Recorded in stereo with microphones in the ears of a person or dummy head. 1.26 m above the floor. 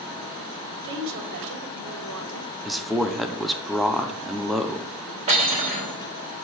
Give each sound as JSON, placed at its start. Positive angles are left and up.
{"t": 0.8, "sound": "a woman speaking", "side_deg": -60, "distance_m": 2.5}
{"t": 2.6, "sound": "a man speaking", "side_deg": 0, "distance_m": 0.5}
{"t": 5.3, "sound": "cutlery clinking", "side_deg": -30, "distance_m": 3.0}